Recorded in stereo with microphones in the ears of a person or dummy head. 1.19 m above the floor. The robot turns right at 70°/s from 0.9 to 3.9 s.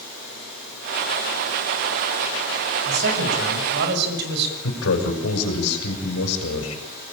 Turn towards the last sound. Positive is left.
turn(degrees=85)